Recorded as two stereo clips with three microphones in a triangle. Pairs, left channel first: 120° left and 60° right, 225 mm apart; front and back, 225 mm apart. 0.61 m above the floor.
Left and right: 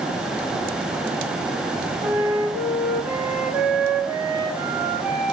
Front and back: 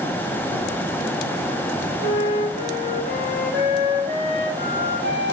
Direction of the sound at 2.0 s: 140° right.